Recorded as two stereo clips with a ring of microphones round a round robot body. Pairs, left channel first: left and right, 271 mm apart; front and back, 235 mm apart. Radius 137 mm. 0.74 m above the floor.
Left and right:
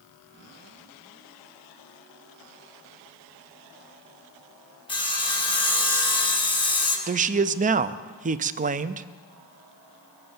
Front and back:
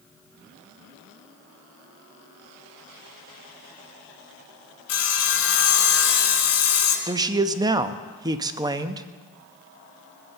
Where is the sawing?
20° left, 2.5 m.